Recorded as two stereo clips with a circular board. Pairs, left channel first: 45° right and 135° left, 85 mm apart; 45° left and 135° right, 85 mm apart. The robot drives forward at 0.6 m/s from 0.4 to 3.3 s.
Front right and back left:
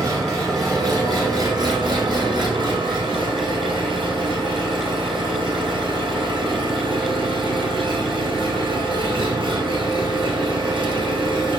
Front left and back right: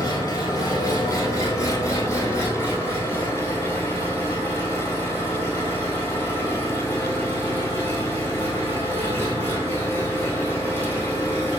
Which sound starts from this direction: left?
An engine running, at 0.0 s.